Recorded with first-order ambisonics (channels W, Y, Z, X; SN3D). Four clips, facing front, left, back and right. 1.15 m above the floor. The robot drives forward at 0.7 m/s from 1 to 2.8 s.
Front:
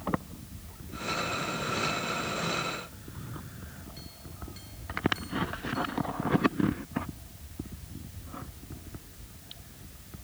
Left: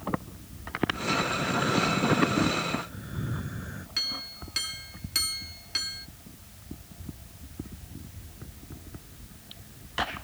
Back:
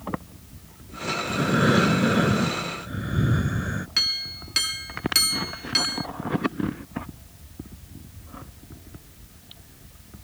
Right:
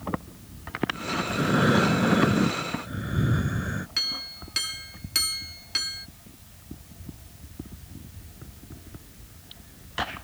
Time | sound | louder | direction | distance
1.3 | breathing | right 4 dB, back 11 dB | 150° right | ?
4.0 | a clink | right 1 dB, back 22 dB | 170° right | ?